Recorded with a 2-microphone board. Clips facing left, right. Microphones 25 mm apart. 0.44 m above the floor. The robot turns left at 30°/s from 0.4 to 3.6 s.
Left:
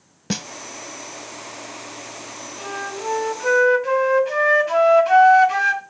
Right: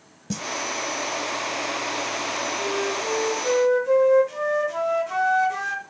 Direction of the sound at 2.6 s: 145° left.